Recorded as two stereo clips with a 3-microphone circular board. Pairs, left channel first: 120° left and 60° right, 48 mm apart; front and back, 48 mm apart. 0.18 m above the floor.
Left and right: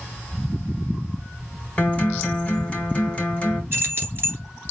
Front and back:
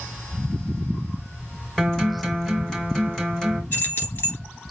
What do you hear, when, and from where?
1.8 s a guitar: 80° left, 1.7 m
3.7 s keys jangling: 25° right, 2.5 m